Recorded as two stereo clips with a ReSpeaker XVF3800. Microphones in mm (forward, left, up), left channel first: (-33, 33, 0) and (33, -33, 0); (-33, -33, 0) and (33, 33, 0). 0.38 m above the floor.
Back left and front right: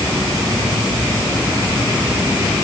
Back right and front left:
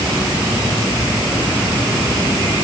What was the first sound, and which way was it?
Only background noise.